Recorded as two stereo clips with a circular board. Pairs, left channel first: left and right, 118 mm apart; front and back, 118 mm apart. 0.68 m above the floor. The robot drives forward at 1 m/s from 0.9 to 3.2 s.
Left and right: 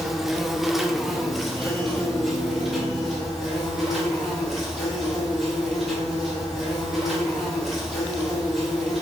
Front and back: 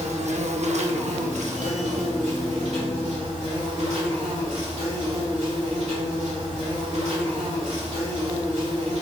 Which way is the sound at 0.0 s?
Straight behind.